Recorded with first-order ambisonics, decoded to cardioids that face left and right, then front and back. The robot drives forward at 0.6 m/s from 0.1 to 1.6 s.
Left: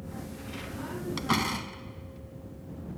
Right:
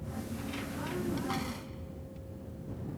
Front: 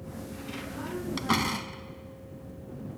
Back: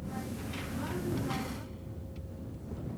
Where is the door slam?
40° left.